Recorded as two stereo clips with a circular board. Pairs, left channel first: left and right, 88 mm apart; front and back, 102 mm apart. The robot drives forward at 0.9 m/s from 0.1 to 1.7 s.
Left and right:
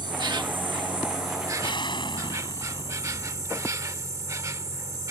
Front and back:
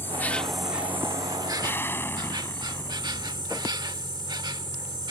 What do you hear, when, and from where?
0.0 s an insect: 65° right; by 5.1 s 140° right
1.6 s an explosion: 70° left